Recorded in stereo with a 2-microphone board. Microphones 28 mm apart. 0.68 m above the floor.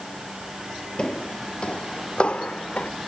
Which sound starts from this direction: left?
Footsteps, at 1.0 s.